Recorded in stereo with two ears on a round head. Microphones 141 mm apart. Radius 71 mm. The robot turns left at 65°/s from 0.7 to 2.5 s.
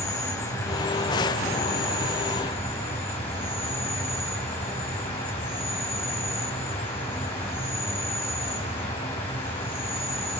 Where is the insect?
155° left, 5 m; by 10.4 s 35° left, 5 m.